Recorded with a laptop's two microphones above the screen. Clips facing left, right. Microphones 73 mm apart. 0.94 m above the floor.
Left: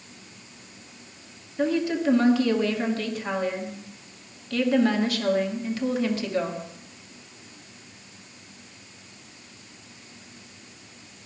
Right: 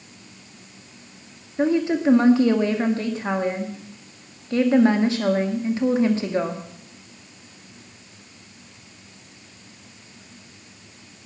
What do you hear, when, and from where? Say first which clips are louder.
1.6 s a woman speaking: right 4 dB; 25° right (ahead or behind), 1.8 m